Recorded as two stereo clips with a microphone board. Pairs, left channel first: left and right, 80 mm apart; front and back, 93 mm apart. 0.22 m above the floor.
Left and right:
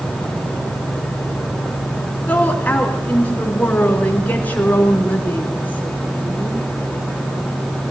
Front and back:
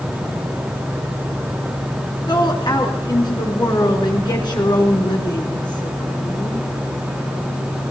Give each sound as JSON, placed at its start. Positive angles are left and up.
{"t": 2.3, "sound": "a woman speaking", "azimuth_deg": 25, "distance_m": 3.0}